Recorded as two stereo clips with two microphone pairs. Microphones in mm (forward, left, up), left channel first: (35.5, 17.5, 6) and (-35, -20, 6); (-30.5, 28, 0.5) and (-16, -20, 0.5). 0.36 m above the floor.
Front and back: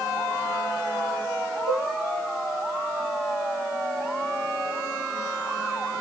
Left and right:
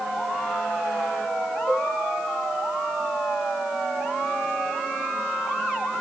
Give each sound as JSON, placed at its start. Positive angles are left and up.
{"t": 1.7, "sound": "a cowbell", "azimuth_deg": -140, "distance_m": 0.9}